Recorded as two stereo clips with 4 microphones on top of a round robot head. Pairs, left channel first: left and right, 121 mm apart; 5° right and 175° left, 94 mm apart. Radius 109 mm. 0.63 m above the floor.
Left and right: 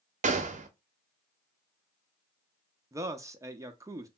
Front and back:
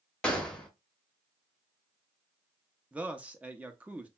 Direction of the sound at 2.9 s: 125° right.